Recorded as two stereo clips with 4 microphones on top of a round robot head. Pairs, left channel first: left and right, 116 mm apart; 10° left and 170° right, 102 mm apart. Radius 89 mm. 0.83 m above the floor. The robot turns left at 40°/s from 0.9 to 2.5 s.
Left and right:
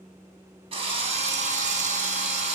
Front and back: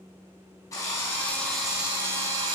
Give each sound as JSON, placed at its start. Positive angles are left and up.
{"t": 0.7, "sound": "a drill", "azimuth_deg": -55, "distance_m": 3.0}